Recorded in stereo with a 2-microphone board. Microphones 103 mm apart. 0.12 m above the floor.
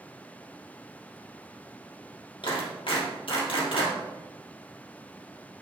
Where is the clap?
65° left (ahead or behind), 3 m.